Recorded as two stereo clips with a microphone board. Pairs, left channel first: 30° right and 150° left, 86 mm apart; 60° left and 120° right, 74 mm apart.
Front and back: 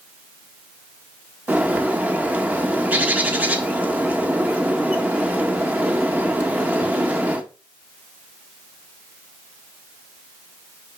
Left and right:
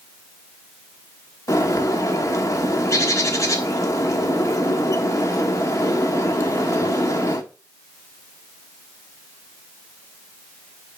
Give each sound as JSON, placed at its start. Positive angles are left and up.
{"t": 1.5, "sound": "a bird", "azimuth_deg": 85, "distance_m": 1.2}